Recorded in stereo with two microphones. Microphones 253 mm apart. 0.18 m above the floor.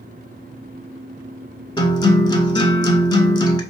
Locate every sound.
1.8 s a guitar: 20° left (ahead or behind), 0.8 m